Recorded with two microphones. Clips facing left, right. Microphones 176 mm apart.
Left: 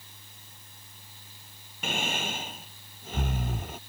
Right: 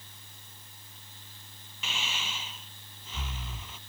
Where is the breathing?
55° left (ahead or behind).